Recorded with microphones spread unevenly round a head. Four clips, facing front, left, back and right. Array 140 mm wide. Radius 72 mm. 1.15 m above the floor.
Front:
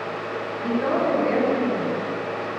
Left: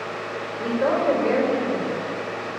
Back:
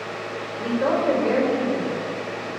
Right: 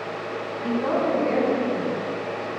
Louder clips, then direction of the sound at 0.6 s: Left 2 dB, back 1 dB; 115° left.